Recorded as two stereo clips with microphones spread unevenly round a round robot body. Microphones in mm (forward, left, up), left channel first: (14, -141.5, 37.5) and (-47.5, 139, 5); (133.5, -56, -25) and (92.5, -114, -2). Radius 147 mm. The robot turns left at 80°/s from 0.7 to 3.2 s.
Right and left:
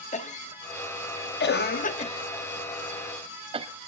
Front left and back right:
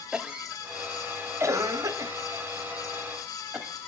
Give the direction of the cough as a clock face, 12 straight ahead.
1 o'clock.